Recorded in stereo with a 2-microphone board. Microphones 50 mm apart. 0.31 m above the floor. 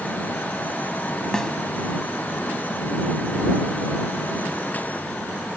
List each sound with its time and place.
1.3 s a snare drum: 10° left (ahead or behind)